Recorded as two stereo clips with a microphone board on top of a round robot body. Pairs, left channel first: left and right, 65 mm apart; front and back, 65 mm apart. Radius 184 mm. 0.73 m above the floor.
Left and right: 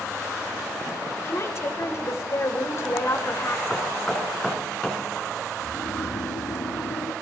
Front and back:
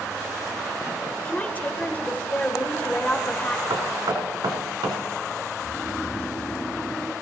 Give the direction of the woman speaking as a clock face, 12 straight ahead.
10 o'clock.